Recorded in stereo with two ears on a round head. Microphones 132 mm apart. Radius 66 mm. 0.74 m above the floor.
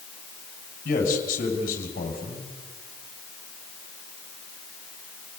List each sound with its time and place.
0.8 s a man speaking: 60° left (ahead or behind), 6.5 m